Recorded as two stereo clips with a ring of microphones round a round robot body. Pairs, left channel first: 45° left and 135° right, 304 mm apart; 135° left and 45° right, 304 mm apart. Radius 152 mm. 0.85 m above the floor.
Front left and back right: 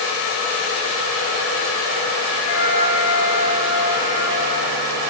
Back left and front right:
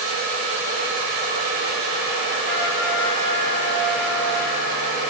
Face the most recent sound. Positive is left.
turn(degrees=80)